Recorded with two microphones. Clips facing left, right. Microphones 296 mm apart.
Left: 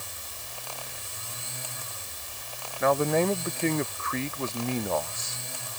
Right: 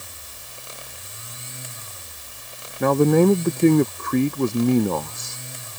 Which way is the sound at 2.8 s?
55° right (ahead or behind).